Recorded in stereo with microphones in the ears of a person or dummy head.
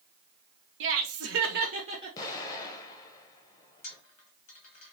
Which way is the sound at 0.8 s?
70° right (ahead or behind).